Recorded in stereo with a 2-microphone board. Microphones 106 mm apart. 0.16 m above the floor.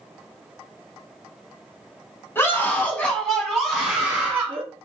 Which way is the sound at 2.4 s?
20° left (ahead or behind).